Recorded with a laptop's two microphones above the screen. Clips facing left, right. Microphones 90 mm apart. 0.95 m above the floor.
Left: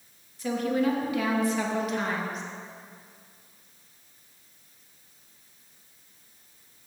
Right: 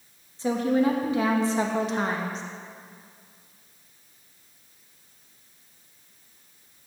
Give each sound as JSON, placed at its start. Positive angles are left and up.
{"t": 0.4, "sound": "a woman speaking", "side_deg": -30, "distance_m": 1.0}